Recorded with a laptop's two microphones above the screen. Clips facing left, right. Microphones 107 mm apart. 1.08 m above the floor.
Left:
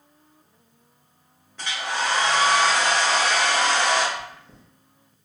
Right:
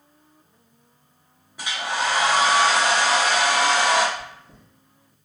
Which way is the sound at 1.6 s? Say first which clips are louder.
Right 1 dB; 10° right (ahead or behind).